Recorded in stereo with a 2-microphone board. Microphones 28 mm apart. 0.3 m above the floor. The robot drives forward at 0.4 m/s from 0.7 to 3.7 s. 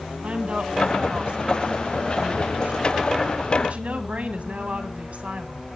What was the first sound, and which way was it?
A woman speaking, 50° right (ahead or behind).